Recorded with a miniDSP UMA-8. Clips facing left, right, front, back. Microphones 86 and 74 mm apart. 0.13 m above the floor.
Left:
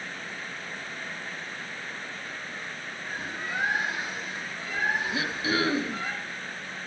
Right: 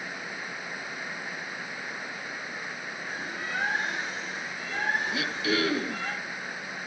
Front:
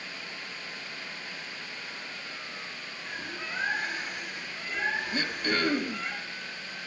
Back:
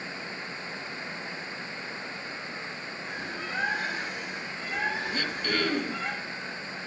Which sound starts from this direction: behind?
A bird, at 3.0 s.